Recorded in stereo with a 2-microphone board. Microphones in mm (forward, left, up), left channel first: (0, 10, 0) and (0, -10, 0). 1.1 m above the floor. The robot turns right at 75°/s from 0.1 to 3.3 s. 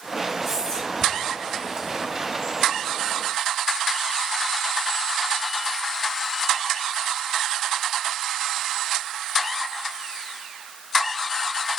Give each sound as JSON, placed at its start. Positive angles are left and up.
{"t": 0.4, "sound": "whispering", "side_deg": 0, "distance_m": 1.9}